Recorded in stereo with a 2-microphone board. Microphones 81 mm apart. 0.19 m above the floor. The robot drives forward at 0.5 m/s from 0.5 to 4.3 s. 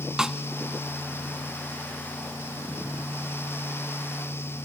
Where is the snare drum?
5° right (ahead or behind), 0.8 m.